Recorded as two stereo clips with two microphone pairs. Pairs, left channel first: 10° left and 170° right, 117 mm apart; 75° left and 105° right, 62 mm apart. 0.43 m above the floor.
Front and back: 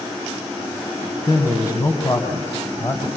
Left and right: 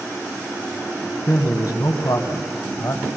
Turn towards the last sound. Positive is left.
turn(degrees=70)